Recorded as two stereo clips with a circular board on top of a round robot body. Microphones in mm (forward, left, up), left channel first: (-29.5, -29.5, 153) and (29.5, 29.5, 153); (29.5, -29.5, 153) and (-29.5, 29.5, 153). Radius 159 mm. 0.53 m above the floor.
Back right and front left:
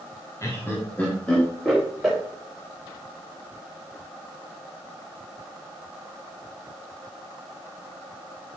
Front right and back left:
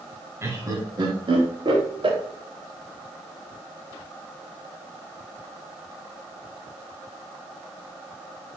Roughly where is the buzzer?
I don't hear a buzzer.